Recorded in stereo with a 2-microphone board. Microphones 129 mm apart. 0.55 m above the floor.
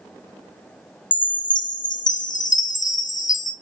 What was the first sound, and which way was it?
A chime, 80° left.